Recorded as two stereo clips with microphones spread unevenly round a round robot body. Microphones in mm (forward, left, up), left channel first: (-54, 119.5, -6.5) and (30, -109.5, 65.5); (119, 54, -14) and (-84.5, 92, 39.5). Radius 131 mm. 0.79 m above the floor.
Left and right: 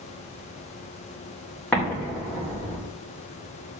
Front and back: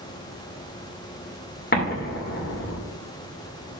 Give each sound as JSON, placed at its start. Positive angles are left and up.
{"t": 1.7, "sound": "an explosion", "azimuth_deg": 30, "distance_m": 2.0}